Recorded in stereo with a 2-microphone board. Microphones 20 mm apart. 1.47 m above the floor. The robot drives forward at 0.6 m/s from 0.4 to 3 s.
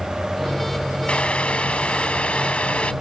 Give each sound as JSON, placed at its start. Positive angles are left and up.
{"t": 1.1, "sound": "boiling", "side_deg": 75}